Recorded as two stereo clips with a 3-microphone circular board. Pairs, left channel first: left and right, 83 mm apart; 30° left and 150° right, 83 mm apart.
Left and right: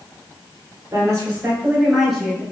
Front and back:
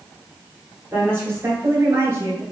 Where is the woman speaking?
100° right, 1.5 m; by 2.4 s 160° left, 1.5 m.